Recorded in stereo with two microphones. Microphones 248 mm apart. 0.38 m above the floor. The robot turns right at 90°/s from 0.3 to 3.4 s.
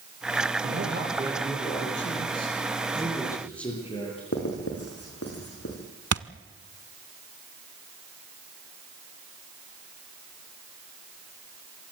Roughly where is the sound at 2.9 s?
Ahead.